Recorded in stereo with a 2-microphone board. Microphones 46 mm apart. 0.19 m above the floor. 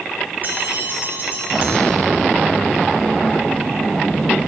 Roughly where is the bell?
Right.